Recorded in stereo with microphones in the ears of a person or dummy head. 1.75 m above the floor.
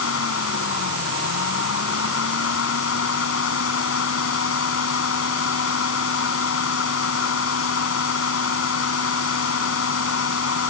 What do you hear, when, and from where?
0.0 s a fan: 80° left